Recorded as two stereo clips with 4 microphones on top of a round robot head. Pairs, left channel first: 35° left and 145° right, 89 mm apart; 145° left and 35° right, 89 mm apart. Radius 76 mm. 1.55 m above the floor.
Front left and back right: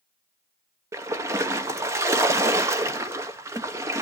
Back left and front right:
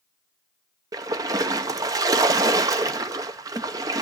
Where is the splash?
85° right, 0.7 m.